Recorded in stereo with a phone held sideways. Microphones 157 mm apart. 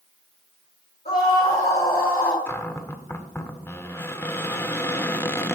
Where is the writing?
I don't hear writing.